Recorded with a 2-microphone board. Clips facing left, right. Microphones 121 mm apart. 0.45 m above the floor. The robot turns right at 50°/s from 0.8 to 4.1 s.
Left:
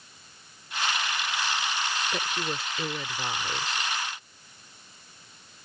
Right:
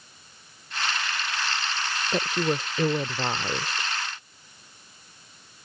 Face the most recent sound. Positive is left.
turn(degrees=-30)